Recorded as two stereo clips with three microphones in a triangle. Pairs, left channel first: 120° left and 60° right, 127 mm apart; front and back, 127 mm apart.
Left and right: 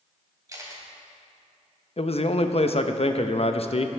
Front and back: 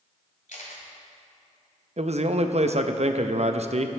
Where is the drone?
I don't hear a drone.